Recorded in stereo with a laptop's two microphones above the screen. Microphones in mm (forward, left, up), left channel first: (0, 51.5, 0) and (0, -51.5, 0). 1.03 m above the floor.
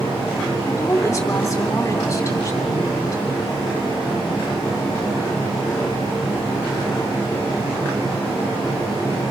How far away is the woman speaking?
About 3 m.